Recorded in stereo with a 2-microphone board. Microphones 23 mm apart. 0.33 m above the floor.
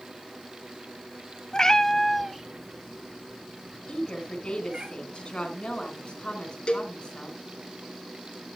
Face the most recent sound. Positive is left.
turn(degrees=50)  # may be behind; listen again after turning